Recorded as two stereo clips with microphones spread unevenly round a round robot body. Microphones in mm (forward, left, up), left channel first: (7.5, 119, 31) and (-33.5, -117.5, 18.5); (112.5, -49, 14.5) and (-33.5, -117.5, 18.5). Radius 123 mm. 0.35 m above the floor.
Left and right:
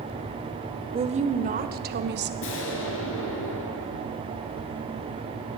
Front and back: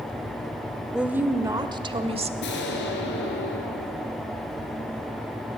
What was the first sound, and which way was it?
A woman speaking, 70° right.